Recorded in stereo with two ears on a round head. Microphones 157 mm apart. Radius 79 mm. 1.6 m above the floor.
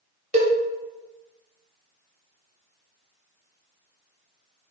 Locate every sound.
0.3 s a cowbell: 40° right (ahead or behind), 0.7 m